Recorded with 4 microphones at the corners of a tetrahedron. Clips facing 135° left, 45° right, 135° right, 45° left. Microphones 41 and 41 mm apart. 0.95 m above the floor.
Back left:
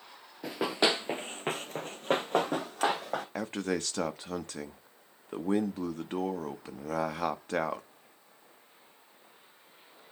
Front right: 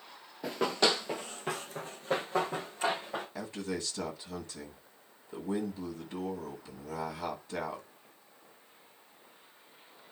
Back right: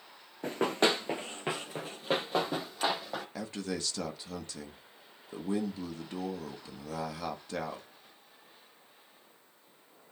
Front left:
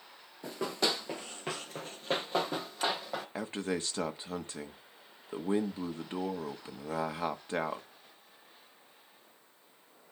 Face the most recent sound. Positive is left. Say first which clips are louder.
# back left 7 dB, front left 4 dB
turn(degrees=105)